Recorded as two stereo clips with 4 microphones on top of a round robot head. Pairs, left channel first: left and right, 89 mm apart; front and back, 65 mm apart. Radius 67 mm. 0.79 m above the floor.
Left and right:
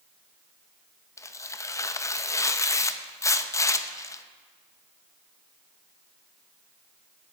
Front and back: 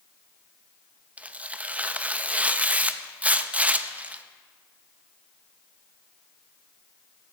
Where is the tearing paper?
125° left, 0.8 m.